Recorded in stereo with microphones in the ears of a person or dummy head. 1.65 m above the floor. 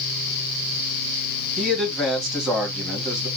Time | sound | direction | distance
1.6 | a man speaking | 5° left (ahead or behind) | 1.6 m